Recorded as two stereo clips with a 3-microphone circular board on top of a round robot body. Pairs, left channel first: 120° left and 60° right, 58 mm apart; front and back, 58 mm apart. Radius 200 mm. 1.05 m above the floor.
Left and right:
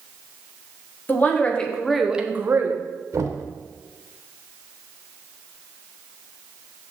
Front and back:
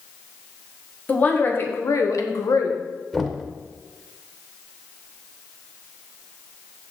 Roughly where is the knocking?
Right.